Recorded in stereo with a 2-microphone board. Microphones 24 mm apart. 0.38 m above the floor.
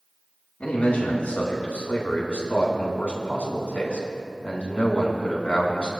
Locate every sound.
0.6 s a man speaking: 70° left (ahead or behind), 4 m; by 5.9 s 55° left (ahead or behind), 3.5 m